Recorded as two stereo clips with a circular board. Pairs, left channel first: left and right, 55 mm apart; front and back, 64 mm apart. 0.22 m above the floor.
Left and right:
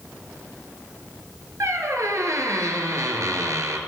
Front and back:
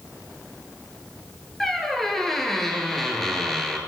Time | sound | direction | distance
1.6 | a squeak | 85° right | 0.6 m